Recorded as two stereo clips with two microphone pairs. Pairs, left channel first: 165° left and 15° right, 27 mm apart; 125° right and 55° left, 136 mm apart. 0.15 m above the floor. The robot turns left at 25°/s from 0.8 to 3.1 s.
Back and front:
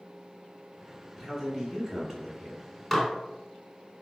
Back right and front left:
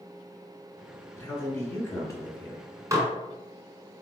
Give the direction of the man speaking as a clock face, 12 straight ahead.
3 o'clock.